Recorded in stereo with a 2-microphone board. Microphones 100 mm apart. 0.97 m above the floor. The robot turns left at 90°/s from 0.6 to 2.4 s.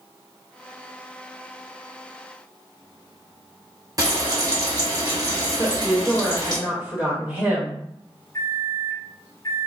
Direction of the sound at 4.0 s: 35° right (ahead or behind).